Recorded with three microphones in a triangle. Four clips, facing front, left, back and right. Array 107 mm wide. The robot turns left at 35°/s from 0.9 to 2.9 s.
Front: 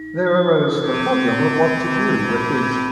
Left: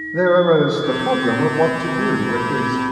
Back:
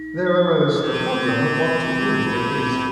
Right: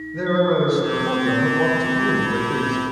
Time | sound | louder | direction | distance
0.1 | a man speaking | left 6 dB, front 2 dB | 65° left | 2 m